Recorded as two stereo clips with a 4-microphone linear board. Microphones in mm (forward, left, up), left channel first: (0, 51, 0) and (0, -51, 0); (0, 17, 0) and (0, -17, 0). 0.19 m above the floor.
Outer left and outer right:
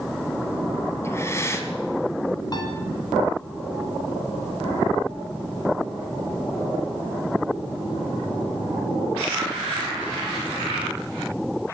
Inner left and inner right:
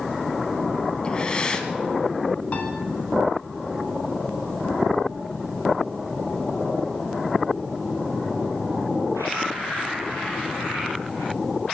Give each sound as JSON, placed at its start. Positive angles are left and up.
{"t": 1.0, "sound": "breathing", "side_deg": 25, "distance_m": 1.3}
{"t": 2.5, "sound": "a piano", "side_deg": 40, "distance_m": 2.0}